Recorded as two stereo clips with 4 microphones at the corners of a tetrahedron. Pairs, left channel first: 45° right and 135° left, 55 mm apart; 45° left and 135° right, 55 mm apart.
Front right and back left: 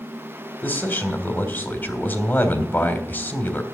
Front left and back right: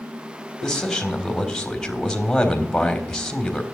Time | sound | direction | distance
0.6 | a man speaking | 30° right | 1.6 m